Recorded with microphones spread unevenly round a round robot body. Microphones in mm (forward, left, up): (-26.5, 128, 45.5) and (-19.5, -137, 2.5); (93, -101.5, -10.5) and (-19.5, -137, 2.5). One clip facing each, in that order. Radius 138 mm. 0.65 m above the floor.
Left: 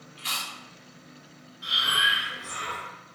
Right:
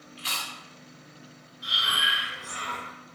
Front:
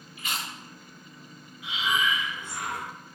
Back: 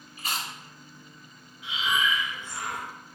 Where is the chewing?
105° right, 0.7 m.